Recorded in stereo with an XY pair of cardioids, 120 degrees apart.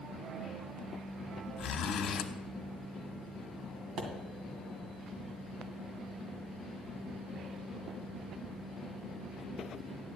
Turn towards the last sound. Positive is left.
turn(degrees=-65)